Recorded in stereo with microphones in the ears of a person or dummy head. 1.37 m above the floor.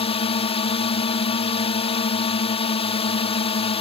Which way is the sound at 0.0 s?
35° left (ahead or behind).